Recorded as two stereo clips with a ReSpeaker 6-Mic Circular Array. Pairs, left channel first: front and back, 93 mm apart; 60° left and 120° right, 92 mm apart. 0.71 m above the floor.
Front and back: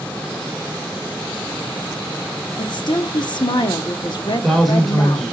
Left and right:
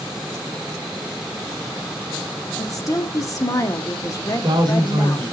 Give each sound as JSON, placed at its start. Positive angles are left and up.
{"t": 2.6, "sound": "a woman speaking", "azimuth_deg": 15, "distance_m": 1.0}
{"t": 4.3, "sound": "a man speaking", "azimuth_deg": -90, "distance_m": 2.5}